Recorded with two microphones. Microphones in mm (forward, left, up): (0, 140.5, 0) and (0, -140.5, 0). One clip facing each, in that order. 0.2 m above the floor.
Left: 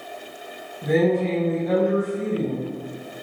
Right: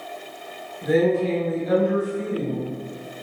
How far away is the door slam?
No door slam in this recording.